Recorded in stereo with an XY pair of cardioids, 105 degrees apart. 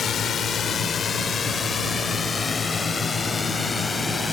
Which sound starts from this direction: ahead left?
A drone, at 0.0 s.